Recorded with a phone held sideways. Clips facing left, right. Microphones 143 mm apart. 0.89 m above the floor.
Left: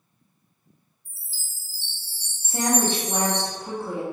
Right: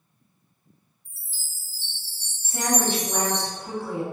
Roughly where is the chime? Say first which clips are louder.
Even; right.